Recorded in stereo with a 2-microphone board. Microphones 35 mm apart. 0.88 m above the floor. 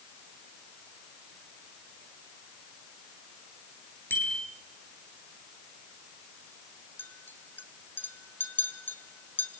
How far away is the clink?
About 3 m.